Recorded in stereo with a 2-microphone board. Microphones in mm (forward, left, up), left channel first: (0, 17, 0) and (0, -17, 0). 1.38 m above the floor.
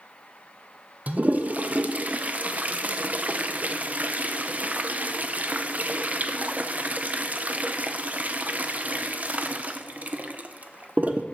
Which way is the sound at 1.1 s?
50° right (ahead or behind).